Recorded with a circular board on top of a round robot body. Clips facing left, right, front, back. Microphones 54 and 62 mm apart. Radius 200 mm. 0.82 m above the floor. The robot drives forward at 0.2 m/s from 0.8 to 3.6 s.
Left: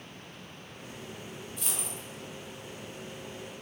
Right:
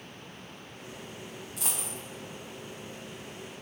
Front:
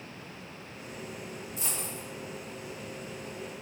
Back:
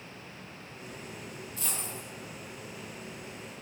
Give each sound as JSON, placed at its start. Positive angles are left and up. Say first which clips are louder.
{"t": 1.6, "sound": "a dropped coin", "louder": "right 3 dB, even", "azimuth_deg": -70, "distance_m": 0.5}